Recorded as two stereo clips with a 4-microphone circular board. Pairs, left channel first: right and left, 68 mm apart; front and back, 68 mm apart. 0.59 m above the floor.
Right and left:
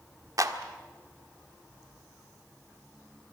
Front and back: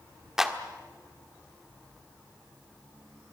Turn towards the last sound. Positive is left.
turn(degrees=100)